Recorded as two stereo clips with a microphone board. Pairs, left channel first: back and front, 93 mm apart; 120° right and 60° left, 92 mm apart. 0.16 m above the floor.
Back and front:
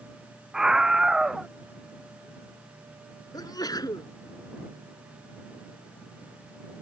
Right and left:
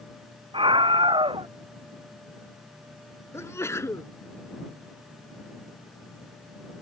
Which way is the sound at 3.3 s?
165° right.